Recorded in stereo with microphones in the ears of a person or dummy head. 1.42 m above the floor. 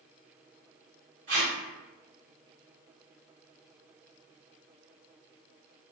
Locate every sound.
1.3 s tape being pulled: 30° right (ahead or behind), 1.3 m